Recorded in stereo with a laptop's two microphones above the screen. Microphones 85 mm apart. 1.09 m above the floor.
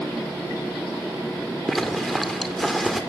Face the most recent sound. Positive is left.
turn(degrees=0)  # may be behind; listen again after turning